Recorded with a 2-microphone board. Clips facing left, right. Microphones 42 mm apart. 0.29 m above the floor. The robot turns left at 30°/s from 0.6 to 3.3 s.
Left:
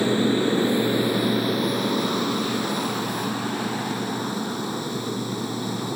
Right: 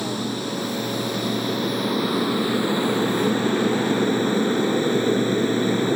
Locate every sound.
0.0 s an aircraft: 30° left; by 6.0 s 50° right